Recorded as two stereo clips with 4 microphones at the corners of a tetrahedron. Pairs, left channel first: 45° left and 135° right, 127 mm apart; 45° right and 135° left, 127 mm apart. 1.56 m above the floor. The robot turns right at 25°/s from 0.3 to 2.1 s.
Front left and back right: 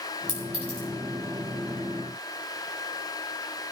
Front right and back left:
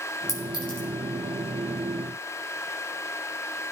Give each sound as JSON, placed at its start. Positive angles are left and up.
{"t": 0.3, "sound": "a clink", "azimuth_deg": -105, "distance_m": 5.0}